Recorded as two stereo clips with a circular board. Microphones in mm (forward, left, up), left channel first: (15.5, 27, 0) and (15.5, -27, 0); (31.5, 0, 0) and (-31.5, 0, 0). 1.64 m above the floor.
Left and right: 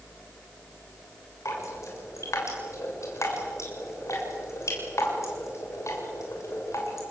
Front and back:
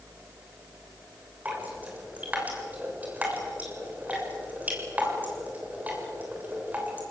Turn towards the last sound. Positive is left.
turn(degrees=115)